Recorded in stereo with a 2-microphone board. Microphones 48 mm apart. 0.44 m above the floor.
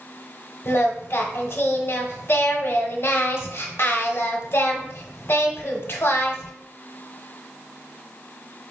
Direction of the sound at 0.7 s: 55° left (ahead or behind).